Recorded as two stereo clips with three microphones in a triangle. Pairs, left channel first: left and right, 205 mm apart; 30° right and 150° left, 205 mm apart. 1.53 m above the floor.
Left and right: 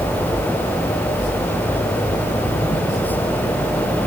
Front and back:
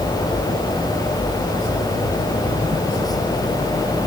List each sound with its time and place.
Only background noise.